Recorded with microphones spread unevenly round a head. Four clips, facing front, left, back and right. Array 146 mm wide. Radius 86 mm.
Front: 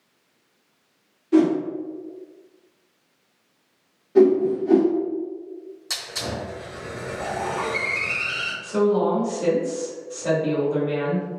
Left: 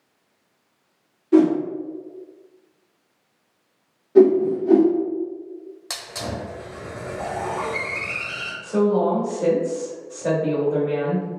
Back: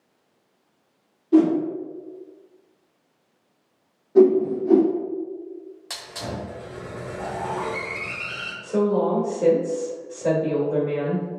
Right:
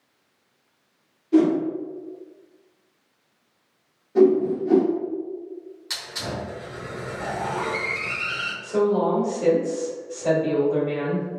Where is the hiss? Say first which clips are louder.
Left 1 dB, front 2 dB; 115° left, 1.3 m.